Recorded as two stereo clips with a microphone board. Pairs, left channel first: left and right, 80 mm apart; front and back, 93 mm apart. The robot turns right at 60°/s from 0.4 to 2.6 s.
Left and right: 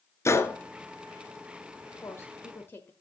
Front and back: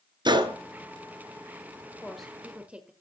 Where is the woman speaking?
80° left, 1.3 m; by 2.9 s 115° left, 1.3 m.